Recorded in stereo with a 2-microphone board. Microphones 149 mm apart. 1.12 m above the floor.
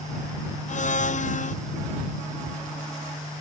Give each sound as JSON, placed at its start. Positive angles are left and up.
{"t": 0.7, "sound": "a blender", "side_deg": 55}